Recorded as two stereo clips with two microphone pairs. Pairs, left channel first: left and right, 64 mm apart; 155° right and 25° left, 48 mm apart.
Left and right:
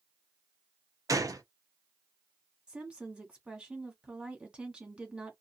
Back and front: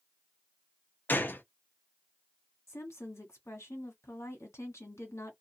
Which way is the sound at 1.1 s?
110° right.